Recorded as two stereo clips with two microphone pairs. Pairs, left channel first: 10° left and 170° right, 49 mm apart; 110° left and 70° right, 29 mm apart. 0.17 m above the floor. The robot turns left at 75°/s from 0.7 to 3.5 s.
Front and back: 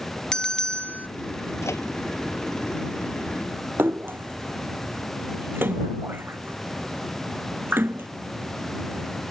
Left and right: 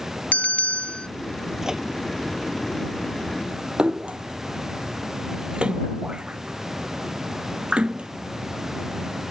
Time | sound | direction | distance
0.3 | a bell | 85° left | ?
1.6 | a microwave | 10° left | ?
3.8 | a splash | 120° right | ?